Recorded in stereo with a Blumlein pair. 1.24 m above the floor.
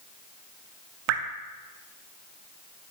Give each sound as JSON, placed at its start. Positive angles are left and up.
{"t": 1.1, "sound": "dripping", "azimuth_deg": -45, "distance_m": 1.4}